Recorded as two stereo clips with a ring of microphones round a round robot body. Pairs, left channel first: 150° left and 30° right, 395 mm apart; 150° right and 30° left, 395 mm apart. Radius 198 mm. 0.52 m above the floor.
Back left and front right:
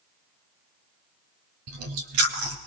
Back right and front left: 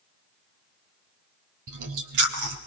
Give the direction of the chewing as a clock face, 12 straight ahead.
12 o'clock.